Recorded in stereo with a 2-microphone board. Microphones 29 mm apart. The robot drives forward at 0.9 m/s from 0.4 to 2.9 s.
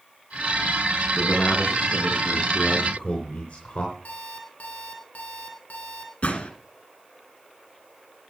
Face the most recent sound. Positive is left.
turn(degrees=65)  # may be behind; listen again after turning